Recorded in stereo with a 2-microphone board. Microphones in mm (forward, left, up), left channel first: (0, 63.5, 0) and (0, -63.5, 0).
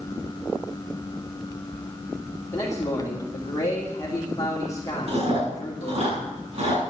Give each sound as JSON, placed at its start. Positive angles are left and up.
{"t": 2.5, "sound": "a man speaking", "side_deg": 25, "distance_m": 2.5}
{"t": 5.1, "sound": "chewing", "side_deg": -50, "distance_m": 8.0}